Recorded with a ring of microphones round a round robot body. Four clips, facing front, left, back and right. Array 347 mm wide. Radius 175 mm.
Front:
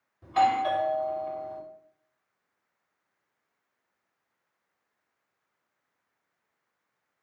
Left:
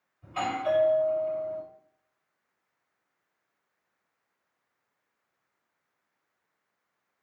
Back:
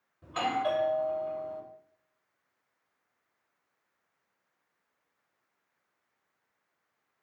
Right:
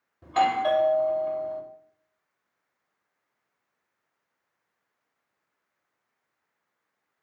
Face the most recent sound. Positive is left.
turn(degrees=-85)